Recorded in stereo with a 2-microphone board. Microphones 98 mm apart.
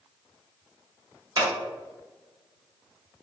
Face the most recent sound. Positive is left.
turn(degrees=-45)  # may be behind; listen again after turning